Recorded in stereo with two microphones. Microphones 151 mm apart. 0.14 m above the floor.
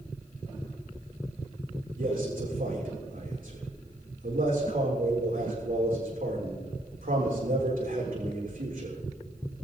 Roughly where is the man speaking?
Right.